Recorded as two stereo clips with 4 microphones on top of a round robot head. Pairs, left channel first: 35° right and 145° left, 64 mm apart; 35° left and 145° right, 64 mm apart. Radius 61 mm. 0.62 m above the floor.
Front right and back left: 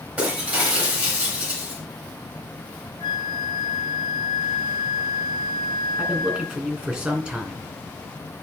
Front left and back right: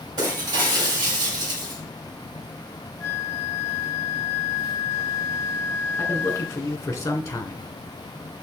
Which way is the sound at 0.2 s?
150° right.